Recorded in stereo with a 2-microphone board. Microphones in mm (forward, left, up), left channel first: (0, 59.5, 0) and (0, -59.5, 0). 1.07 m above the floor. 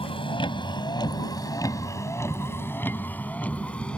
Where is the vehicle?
50° left (ahead or behind); by 4.0 s 10° left (ahead or behind).